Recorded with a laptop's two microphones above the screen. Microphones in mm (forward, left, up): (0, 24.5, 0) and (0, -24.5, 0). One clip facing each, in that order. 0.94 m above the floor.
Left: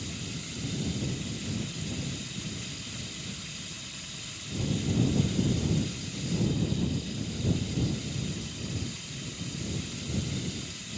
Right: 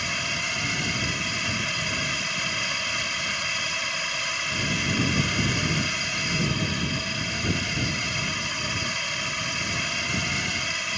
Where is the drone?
80° right.